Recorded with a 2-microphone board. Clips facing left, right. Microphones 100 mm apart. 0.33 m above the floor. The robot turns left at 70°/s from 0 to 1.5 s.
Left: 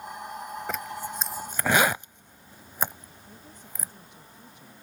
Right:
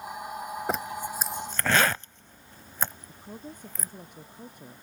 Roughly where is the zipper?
Right.